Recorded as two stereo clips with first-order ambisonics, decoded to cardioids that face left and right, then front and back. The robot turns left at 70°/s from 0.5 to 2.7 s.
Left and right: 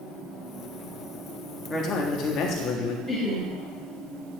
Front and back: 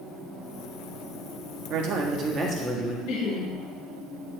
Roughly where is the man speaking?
Behind.